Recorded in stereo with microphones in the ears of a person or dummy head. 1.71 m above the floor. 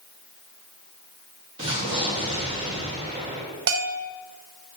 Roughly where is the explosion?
Right.